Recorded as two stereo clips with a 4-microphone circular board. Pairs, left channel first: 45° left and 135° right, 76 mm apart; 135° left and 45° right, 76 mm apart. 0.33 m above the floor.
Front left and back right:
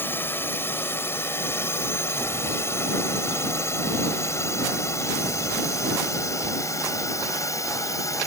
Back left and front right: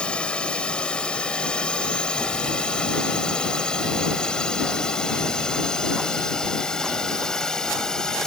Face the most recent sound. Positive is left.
turn(degrees=55)